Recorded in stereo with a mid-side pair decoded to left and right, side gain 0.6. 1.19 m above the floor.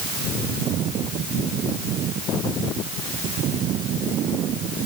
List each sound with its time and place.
Only background noise.